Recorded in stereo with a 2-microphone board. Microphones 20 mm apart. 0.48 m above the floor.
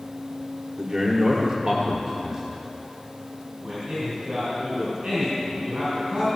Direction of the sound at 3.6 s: 55° right (ahead or behind).